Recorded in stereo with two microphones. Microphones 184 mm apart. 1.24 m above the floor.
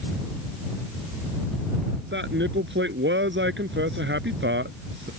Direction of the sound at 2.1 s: 85° right.